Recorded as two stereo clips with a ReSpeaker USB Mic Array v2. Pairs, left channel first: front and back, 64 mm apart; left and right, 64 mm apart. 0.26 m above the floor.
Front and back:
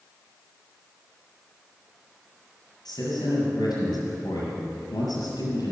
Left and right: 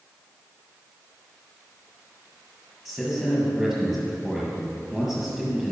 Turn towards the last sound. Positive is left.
turn(degrees=-5)